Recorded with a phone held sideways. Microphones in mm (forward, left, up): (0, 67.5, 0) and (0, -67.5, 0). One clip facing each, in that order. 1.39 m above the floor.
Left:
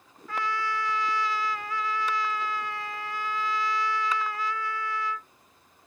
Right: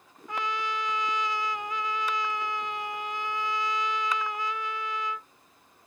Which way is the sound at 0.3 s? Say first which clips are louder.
Left 1 dB; 20° right (ahead or behind).